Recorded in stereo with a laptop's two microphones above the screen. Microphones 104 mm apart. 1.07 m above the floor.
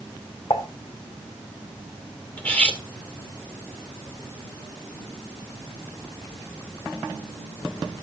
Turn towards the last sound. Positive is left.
turn(degrees=15)  # may be behind; listen again after turning